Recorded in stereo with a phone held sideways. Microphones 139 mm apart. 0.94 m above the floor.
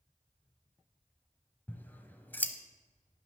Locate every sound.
1.7 s scissors: 15° left (ahead or behind), 0.8 m